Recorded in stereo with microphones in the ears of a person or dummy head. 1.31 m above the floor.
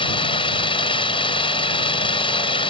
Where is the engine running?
30° left (ahead or behind).